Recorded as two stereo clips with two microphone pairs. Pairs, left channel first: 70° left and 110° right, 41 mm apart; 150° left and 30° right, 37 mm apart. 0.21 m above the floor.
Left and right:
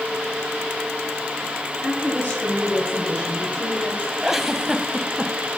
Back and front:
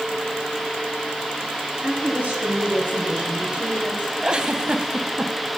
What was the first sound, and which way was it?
A woman speaking, 30° left.